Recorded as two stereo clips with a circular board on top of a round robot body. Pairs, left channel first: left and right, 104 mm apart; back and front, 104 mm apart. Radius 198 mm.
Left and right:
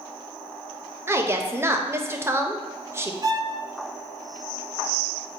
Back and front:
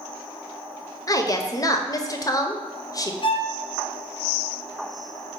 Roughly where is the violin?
Behind right.